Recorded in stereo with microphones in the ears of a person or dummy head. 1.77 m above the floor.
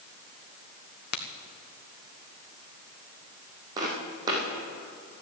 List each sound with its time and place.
1.1 s a crack: 60° left (ahead or behind), 1.3 m
3.8 s footsteps: 25° right (ahead or behind), 5 m